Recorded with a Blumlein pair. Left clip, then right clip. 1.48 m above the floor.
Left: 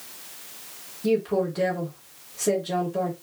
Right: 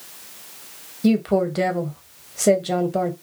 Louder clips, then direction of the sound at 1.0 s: Right 3 dB; 60° right.